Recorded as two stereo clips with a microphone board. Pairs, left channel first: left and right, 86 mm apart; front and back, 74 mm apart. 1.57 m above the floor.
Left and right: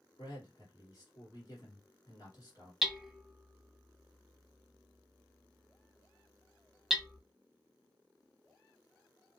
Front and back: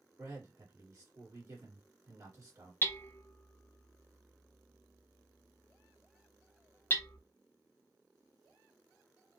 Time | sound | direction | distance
0.2 | a man speaking | 135° left | 2 m
2.8 | hammering | 5° right | 0.7 m